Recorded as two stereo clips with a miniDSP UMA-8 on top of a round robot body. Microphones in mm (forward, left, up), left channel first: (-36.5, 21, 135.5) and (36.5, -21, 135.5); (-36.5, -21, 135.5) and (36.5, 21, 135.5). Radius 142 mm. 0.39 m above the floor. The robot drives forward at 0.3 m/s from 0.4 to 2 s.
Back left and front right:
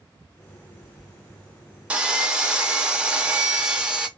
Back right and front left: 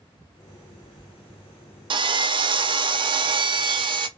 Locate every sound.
1.9 s sawing: 45° left, 0.6 m; by 4.1 s 50° left, 0.6 m